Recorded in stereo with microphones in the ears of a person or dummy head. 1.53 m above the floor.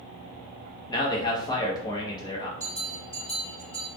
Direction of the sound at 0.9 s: 20° left (ahead or behind).